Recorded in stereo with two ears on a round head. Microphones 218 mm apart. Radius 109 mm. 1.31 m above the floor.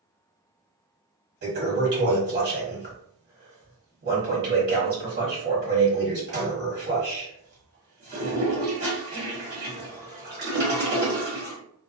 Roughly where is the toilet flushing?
Right.